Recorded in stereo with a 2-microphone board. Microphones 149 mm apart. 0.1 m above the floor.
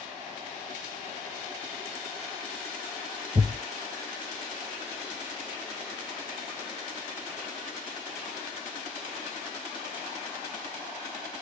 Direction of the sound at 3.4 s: 45° right (ahead or behind).